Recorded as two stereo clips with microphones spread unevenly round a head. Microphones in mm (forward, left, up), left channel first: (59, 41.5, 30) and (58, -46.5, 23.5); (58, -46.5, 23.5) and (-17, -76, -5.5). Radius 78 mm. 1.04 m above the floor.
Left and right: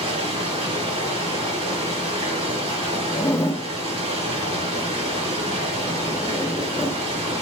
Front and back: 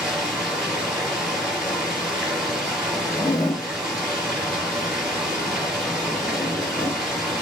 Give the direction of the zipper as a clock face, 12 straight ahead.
11 o'clock.